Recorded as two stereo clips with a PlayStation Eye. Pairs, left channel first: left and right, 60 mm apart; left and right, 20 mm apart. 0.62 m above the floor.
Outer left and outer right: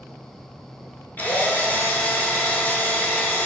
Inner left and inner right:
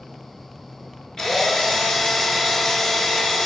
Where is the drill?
30° left (ahead or behind), 1.0 m.